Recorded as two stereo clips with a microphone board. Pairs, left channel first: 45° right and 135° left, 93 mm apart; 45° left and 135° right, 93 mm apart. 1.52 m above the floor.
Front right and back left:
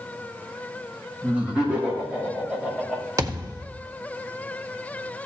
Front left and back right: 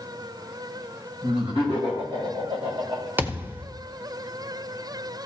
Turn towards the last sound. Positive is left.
turn(degrees=165)